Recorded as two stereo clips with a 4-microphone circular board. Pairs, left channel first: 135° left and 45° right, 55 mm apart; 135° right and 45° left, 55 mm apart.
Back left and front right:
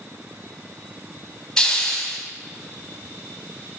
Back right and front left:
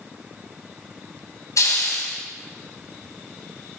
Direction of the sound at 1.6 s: 145° right.